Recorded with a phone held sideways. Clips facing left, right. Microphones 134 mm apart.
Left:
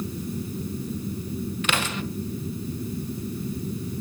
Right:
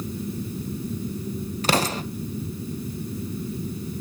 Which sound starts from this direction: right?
An explosion, at 1.6 s.